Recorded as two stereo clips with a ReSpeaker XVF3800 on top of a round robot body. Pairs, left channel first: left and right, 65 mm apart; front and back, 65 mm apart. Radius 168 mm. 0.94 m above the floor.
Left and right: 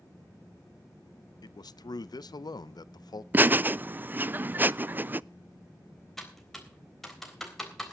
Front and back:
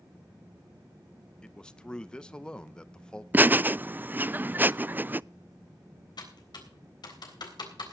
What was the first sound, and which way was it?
A man speaking, 75° left.